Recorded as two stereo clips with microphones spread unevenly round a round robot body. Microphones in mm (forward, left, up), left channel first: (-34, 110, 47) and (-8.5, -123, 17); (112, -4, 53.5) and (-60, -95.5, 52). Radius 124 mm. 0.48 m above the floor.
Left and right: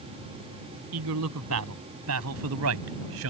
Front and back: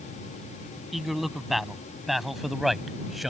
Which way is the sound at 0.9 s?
60° right.